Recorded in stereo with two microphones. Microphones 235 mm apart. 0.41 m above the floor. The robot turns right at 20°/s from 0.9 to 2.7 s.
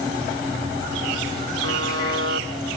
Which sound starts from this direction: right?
A buzzer, at 1.6 s.